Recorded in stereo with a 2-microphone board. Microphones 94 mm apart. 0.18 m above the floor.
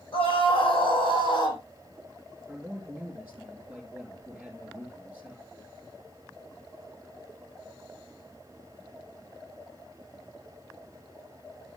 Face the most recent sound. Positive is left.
turn(degrees=-10)  # may be behind; listen again after turning